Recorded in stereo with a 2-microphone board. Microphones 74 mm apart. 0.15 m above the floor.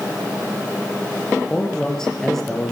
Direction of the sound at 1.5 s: 10° left (ahead or behind).